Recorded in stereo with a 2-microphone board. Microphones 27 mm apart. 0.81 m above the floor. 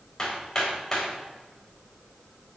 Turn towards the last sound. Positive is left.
turn(degrees=20)  # may be behind; listen again after turning